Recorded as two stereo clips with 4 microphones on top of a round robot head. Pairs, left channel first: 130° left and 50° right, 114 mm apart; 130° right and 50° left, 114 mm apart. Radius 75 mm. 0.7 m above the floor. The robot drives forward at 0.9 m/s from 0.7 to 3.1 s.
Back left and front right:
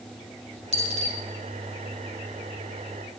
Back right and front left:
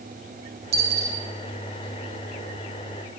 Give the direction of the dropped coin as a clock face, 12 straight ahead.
1 o'clock.